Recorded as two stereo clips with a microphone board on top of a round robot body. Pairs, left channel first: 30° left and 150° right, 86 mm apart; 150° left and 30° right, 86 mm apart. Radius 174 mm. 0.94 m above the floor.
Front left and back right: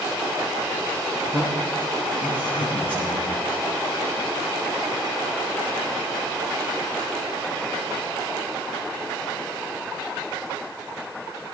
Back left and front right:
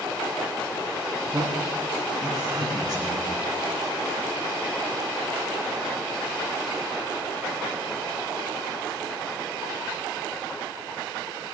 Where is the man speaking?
80° right, 6 m.